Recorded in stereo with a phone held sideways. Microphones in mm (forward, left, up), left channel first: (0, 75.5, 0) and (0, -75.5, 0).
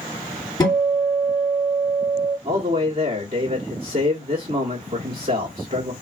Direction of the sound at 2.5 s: 35° right (ahead or behind).